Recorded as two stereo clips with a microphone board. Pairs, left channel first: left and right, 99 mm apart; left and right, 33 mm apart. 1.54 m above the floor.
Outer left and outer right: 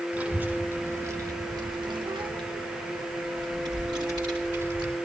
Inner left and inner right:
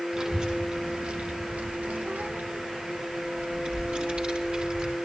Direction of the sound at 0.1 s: 15° right (ahead or behind).